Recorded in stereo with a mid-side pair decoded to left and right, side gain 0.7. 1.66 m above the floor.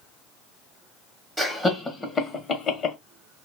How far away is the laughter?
About 0.9 m.